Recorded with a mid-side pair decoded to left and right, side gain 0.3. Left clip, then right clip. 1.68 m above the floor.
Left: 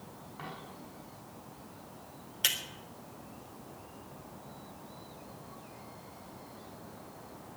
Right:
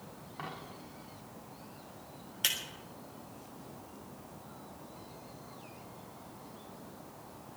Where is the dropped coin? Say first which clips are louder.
Right 2 dB; 35° right, 5 m.